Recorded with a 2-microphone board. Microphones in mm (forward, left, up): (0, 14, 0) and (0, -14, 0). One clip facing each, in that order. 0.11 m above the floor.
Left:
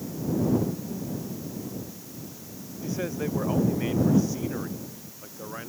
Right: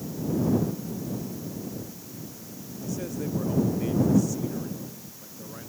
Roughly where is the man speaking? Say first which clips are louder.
Left 2 dB; left.